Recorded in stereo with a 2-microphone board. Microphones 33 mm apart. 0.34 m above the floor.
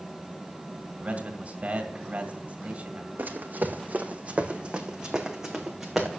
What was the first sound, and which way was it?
A man speaking, 45° right (ahead or behind).